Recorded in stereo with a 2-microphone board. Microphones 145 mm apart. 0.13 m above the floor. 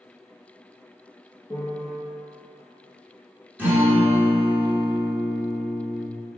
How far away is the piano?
About 1.5 m.